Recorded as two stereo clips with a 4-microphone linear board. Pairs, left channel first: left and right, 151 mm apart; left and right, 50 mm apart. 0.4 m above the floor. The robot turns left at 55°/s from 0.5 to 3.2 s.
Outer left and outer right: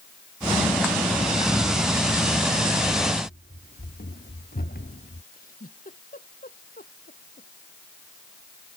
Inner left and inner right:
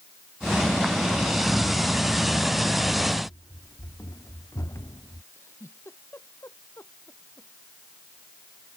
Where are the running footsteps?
85° left.